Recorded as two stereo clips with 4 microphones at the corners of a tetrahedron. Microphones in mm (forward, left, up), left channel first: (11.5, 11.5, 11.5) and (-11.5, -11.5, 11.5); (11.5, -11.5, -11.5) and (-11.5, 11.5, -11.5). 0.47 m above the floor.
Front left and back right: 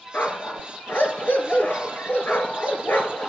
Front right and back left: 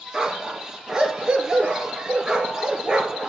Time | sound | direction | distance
0.1 | a dog barking | 65° left | 2.5 m